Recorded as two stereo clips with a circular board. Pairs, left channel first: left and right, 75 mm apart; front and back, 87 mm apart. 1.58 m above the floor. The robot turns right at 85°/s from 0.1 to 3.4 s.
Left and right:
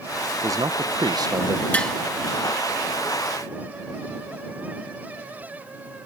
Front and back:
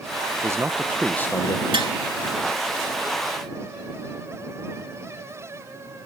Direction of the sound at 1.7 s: 160° left.